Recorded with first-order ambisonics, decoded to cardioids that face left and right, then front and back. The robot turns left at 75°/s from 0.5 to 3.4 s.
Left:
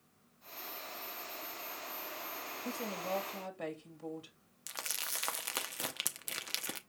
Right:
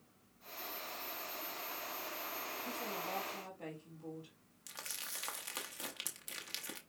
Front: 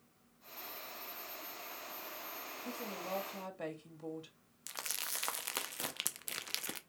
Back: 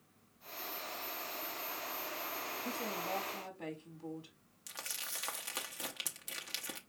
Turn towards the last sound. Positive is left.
turn(degrees=55)